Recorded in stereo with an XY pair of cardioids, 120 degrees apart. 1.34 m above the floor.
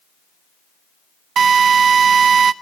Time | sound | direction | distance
1.4 | a drill | 45° right | 0.8 m